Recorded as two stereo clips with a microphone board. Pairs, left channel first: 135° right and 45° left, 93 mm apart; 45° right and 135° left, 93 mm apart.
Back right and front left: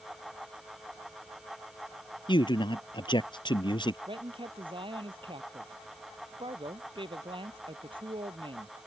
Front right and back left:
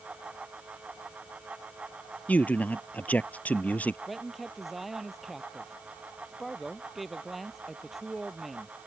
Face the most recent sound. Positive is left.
turn(degrees=45)